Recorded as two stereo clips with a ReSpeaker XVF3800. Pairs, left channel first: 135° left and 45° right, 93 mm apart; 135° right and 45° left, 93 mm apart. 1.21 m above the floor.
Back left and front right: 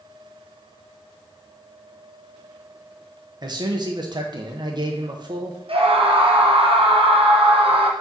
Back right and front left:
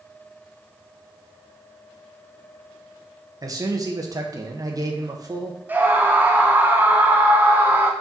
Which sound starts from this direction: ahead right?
A scream, at 5.7 s.